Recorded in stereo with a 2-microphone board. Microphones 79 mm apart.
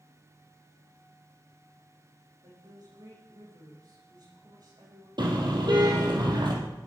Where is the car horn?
65° right (ahead or behind), 4 m.